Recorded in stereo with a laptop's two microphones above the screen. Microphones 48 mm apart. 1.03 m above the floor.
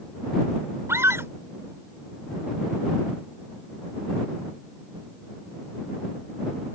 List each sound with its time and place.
0.9 s a scream: 75° right (ahead or behind)